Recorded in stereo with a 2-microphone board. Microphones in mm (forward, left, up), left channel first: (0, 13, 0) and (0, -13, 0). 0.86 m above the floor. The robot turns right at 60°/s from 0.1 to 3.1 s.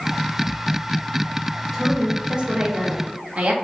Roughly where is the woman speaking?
Behind.